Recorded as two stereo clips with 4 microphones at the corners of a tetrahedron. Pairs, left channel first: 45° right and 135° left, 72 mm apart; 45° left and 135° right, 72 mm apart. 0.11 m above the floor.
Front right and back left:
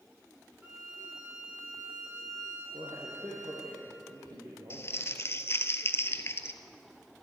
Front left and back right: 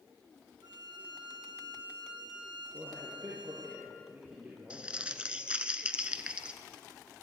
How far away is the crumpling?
About 0.7 m.